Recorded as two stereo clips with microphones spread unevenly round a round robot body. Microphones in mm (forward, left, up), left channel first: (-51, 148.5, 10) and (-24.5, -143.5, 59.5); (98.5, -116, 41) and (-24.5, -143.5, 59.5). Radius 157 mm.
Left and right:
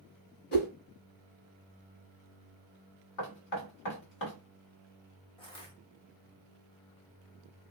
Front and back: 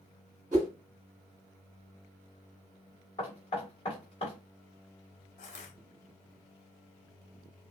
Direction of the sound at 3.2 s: 70° left.